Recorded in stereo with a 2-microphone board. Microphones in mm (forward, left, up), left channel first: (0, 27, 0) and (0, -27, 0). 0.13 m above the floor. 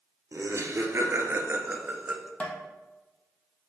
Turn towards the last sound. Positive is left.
turn(degrees=25)  # may be behind; listen again after turning